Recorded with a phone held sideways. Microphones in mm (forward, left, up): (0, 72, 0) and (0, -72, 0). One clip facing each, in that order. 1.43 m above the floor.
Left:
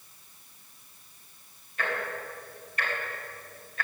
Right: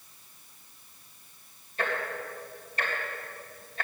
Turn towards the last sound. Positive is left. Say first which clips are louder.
# right 1 dB
turn(degrees=-30)  # may be behind; listen again after turning